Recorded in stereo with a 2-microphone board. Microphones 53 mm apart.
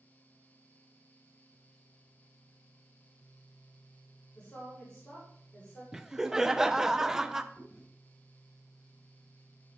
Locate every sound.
4.3 s a woman speaking: 20° left (ahead or behind), 3.5 m
5.9 s laughter: 10° right (ahead or behind), 0.5 m
7.5 s chewing: 45° left (ahead or behind), 5 m